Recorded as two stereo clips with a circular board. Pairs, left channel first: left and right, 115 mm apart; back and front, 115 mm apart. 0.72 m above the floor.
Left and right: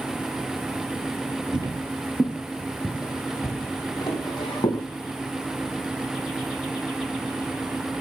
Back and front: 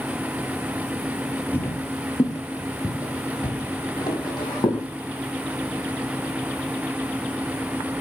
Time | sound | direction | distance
1.5 | footsteps | 120° right | 0.9 m